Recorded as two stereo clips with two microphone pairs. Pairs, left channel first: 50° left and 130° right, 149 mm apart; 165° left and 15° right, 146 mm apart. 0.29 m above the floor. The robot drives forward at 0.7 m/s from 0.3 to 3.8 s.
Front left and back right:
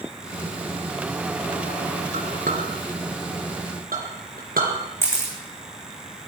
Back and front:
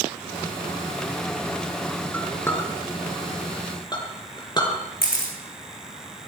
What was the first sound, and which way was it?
A clink, 120° right.